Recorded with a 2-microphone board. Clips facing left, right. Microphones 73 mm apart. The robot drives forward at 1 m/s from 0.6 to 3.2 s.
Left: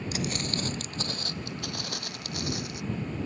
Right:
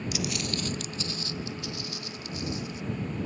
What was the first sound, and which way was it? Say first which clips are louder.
Footsteps: left 2 dB; 40° left (ahead or behind).